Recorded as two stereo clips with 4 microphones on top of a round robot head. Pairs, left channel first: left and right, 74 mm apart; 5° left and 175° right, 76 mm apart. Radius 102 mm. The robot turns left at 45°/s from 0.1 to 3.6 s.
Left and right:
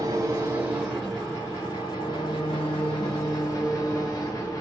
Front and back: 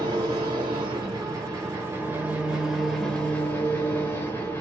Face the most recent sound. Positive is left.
turn(degrees=55)